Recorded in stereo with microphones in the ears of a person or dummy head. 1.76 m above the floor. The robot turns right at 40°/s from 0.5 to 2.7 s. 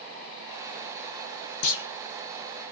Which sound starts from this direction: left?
A clunk, at 1.6 s.